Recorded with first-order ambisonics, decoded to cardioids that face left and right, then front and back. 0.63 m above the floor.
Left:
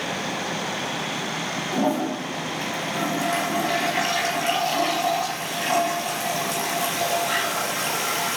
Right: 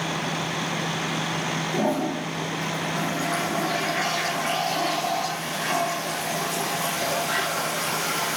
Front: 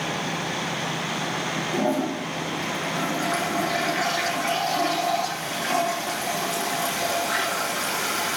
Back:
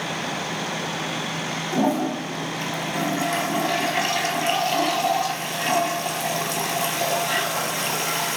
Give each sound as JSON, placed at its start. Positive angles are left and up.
{"t": 1.7, "sound": "a toilet flushing", "azimuth_deg": 155, "distance_m": 4.5}